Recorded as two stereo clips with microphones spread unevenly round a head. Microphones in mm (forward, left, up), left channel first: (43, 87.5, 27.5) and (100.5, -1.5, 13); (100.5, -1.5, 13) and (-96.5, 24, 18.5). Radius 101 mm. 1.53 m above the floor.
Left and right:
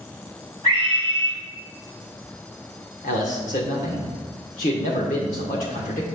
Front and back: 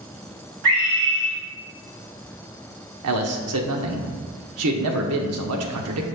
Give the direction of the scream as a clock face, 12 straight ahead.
6 o'clock.